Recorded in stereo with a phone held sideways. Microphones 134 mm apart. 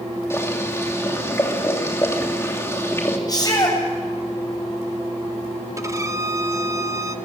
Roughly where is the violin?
Right.